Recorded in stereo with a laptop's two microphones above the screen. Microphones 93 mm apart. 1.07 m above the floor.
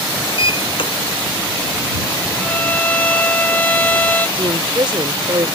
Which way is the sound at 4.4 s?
60° right (ahead or behind).